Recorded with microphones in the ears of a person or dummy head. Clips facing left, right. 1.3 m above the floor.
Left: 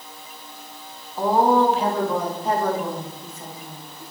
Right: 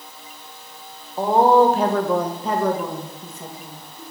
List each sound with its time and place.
1.2 s a woman speaking: 10° right (ahead or behind), 1.1 m; by 4.0 s 80° right, 2 m